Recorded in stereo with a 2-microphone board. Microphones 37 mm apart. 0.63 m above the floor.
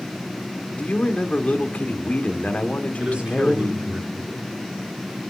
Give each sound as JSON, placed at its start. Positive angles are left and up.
{"t": 0.8, "sound": "a man speaking", "side_deg": 35, "distance_m": 1.9}
{"t": 3.0, "sound": "a man speaking", "side_deg": -25, "distance_m": 8.0}